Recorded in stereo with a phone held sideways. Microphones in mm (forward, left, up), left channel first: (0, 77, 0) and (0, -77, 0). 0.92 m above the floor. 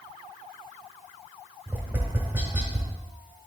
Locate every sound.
1.7 s tapping: 15° right (ahead or behind), 1.4 m